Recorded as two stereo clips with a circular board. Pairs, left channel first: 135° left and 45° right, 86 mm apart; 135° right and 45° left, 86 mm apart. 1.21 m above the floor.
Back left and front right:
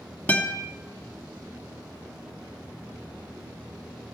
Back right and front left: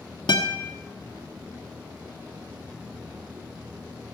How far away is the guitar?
About 1.7 m.